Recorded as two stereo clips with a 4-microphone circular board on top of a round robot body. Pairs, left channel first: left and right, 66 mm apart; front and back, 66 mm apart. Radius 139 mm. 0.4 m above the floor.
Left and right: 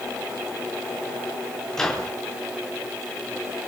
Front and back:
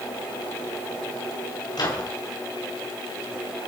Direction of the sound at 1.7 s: 10° left.